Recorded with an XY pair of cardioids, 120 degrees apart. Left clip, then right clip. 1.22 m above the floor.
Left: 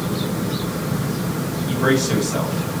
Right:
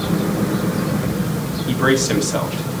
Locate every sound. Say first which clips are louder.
1.7 s a man speaking: right 2 dB; 30° right, 1.5 m